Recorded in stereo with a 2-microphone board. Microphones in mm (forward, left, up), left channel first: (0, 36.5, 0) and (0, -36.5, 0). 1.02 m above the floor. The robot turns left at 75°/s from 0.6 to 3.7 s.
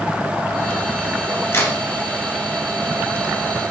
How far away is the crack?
About 1.7 m.